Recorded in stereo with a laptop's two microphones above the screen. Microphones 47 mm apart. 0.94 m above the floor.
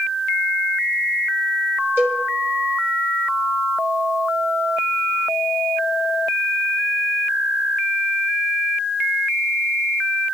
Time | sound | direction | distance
2.0 | a cowbell | 40° right (ahead or behind) | 6.5 m